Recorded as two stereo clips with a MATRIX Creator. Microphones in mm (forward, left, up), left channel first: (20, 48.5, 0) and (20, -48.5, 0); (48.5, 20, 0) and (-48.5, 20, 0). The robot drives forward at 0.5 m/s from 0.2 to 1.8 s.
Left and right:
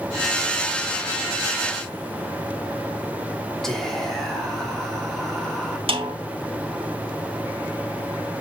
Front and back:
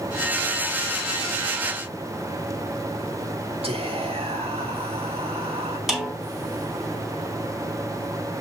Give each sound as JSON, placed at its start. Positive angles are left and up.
{"t": 3.6, "sound": "whispering", "azimuth_deg": 175, "distance_m": 2.5}
{"t": 5.9, "sound": "a snare drum", "azimuth_deg": -95, "distance_m": 2.0}